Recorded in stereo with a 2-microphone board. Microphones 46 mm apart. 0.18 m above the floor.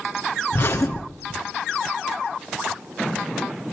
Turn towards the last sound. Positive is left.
turn(degrees=55)  # may be behind; listen again after turning